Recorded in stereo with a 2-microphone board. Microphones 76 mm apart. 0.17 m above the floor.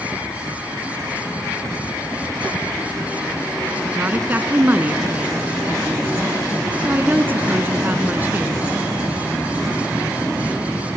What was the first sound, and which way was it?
A woman speaking, 25° right (ahead or behind).